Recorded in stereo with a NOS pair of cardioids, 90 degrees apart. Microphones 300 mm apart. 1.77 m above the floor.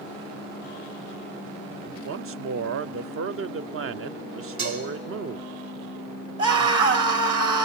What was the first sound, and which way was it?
A man speaking, 50° right.